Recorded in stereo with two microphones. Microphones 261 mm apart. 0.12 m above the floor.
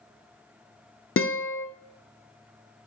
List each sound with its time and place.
1.2 s a guitar: 50° left (ahead or behind), 0.7 m